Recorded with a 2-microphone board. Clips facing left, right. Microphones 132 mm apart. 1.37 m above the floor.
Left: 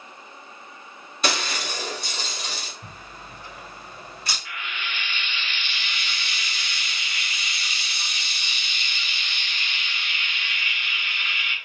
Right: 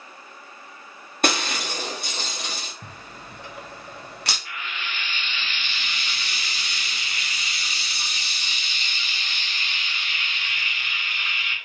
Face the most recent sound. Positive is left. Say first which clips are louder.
# even
turn(degrees=-35)  # may be behind; listen again after turning